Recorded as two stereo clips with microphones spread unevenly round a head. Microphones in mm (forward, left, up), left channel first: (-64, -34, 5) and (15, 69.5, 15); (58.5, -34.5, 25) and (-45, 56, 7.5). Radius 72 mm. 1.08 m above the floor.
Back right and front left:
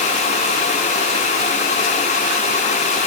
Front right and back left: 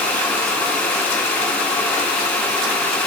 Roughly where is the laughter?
No laughter in this recording.